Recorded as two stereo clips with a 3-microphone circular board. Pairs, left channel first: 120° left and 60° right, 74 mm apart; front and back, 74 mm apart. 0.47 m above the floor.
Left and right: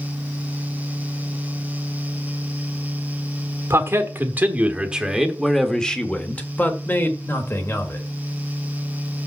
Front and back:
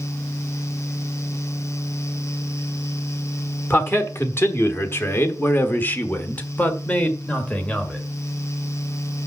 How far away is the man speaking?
About 1.4 m.